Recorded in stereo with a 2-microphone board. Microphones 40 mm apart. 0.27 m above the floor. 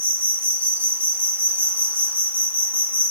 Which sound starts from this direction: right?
An insect, at 0.0 s.